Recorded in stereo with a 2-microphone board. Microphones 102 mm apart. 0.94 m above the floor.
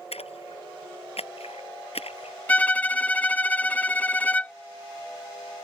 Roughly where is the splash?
Left.